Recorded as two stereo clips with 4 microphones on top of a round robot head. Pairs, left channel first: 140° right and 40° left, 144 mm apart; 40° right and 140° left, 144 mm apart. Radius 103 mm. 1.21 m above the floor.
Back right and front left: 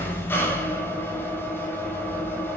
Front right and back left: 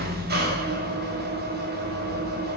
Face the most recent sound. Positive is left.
turn(degrees=145)